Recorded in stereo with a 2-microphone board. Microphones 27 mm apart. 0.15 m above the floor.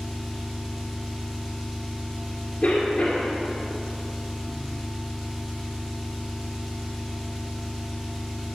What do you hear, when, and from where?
0.0 s an engine running: 10° right (ahead or behind), 1.9 m
2.6 s a cough: 35° left (ahead or behind), 2 m